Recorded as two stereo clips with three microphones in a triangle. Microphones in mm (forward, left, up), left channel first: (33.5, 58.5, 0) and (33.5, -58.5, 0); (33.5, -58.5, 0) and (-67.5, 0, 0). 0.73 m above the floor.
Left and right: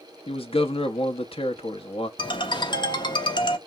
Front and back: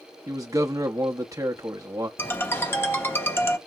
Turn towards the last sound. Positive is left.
turn(degrees=40)